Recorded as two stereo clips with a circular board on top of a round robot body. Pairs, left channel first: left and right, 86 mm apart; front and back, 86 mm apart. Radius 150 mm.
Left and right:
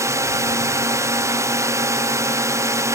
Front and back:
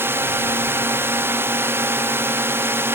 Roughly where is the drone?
Behind right.